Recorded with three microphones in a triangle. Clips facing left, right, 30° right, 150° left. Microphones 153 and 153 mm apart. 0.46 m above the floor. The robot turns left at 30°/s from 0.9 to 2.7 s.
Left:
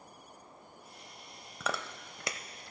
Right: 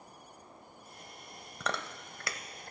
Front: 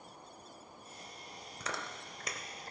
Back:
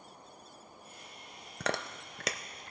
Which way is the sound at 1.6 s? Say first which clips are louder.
Even, back 7 dB; 175° left.